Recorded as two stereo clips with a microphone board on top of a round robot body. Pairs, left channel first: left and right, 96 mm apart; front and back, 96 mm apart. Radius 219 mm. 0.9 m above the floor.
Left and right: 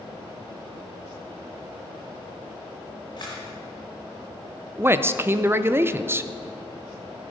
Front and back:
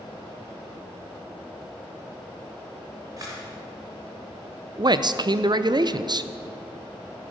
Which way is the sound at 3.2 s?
135° left.